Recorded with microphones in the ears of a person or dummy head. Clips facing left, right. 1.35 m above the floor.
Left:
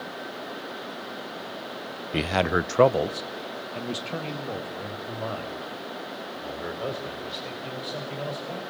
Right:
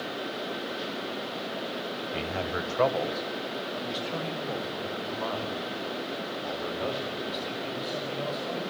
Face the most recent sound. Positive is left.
turn(degrees=10)  # may be behind; listen again after turning